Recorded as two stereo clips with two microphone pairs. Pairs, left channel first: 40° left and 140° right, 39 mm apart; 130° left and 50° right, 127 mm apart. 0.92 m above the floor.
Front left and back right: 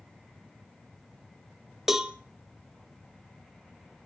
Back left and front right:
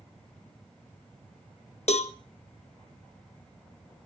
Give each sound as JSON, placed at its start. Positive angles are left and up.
{"t": 1.9, "sound": "a cowbell", "azimuth_deg": 140, "distance_m": 0.8}